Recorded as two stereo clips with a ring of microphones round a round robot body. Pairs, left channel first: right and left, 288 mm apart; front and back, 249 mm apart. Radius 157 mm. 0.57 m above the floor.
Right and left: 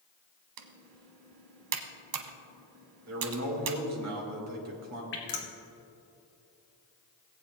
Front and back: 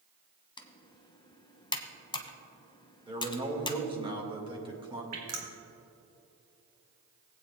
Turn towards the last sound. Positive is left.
turn(degrees=-145)